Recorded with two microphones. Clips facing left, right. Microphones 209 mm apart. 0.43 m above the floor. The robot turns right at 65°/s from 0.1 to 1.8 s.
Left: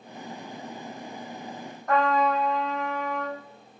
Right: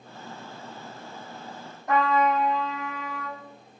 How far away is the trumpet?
About 5 m.